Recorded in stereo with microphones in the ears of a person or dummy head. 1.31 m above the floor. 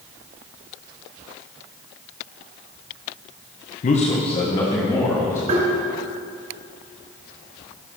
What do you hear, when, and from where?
3.8 s a man speaking: 40° left (ahead or behind), 1.0 m; by 5.4 s 20° left (ahead or behind), 2.5 m
5.5 s tapping: 55° right (ahead or behind), 3.5 m